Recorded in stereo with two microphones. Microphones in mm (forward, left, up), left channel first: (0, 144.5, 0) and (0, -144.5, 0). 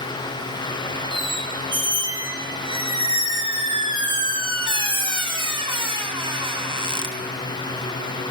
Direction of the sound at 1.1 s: 15° right (ahead or behind).